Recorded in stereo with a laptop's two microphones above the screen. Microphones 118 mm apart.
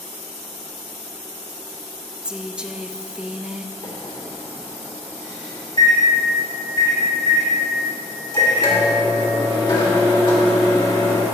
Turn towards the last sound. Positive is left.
turn(degrees=40)  # may be behind; listen again after turning